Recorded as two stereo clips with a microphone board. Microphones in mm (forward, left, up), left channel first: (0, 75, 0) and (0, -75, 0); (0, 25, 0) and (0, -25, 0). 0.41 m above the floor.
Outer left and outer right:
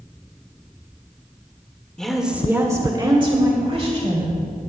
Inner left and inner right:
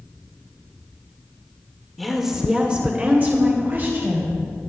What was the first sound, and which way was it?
A woman speaking, 5° left (ahead or behind).